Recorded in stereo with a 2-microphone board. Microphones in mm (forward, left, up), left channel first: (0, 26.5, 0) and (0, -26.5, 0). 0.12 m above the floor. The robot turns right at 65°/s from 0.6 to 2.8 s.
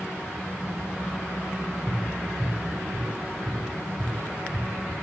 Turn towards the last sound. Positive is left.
turn(degrees=-55)  # may be behind; listen again after turning